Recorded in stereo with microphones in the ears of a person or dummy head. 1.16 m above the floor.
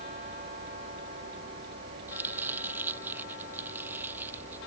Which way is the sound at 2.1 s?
10° right (ahead or behind).